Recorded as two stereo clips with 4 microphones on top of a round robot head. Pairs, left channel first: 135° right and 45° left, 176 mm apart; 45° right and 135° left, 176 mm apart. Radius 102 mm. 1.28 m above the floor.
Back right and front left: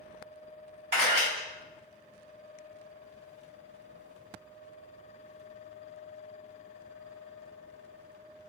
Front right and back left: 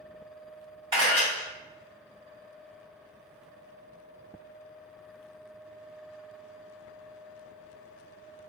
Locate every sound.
0.9 s a camera shutter: 75° left, 1.6 m